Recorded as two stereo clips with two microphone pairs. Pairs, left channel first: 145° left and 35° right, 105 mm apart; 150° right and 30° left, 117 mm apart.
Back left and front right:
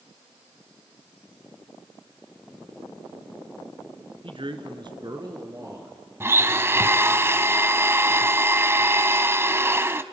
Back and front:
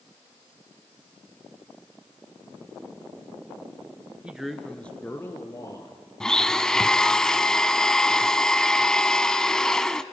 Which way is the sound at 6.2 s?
75° right.